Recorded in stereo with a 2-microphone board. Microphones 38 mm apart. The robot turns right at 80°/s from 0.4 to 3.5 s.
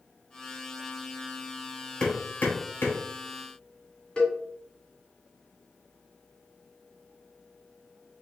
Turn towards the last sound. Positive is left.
turn(degrees=30)  # may be behind; listen again after turning